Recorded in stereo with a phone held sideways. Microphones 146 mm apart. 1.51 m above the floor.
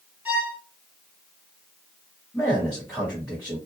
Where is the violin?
10° right (ahead or behind), 2.5 m.